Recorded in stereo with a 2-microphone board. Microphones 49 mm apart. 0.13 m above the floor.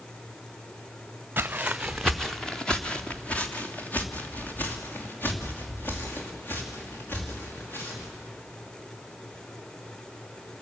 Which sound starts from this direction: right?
Footsteps, at 1.4 s.